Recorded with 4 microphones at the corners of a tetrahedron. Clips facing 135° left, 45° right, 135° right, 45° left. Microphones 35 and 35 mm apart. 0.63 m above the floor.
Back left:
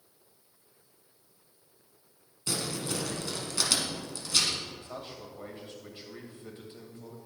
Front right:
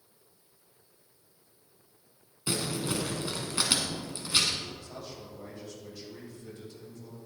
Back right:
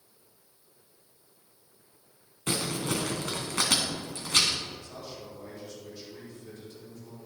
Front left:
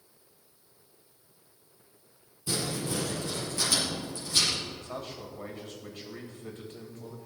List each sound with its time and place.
2.5 s crumpling: 115° right, 2.0 m
4.8 s a man speaking: 80° left, 2.5 m